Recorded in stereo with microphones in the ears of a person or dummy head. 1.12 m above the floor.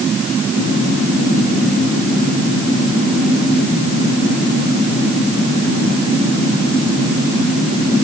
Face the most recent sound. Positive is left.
No sound to turn to.